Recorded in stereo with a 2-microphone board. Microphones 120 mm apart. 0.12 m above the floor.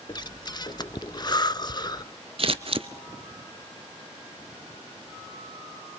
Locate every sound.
0.1 s breathing: 40° left (ahead or behind), 0.6 m
2.4 s scissors: 55° right (ahead or behind), 0.8 m